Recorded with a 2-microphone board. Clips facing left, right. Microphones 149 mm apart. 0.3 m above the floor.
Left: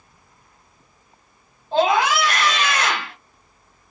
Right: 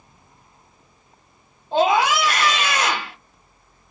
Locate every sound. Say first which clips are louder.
1.7 s a scream: even; 20° right (ahead or behind), 1.3 m